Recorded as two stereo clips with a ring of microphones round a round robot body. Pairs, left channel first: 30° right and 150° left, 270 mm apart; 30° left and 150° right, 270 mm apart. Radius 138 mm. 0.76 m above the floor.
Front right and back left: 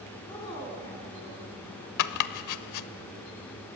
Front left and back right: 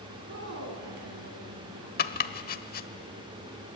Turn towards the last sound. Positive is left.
turn(degrees=-25)